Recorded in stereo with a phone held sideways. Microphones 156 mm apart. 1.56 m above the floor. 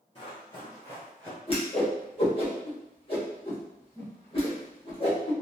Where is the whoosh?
35° left (ahead or behind), 1.1 m.